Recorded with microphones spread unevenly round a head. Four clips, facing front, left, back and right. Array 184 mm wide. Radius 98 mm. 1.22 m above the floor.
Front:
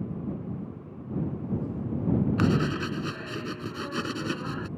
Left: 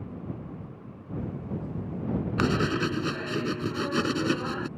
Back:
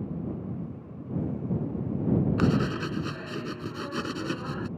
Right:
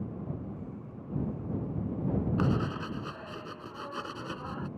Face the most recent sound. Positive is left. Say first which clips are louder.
# left 5 dB, even
turn(degrees=75)